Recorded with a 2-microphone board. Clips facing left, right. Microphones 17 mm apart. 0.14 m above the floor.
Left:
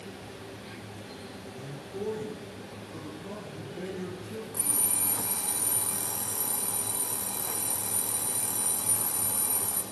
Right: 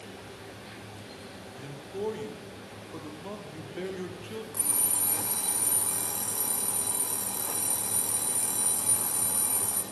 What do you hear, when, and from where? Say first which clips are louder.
1.6 s a man speaking: right 2 dB; 70° right (ahead or behind), 3.5 m
4.5 s an alarm clock: even; 20° right (ahead or behind), 6 m